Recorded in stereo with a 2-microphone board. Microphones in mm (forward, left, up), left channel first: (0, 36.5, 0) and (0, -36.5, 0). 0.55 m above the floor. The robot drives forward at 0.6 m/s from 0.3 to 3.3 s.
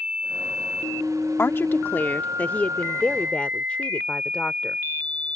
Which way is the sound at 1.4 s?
35° left (ahead or behind).